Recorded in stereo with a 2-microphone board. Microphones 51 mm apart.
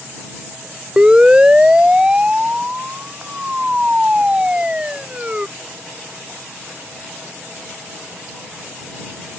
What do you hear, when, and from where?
1.0 s a siren: 20° right (ahead or behind)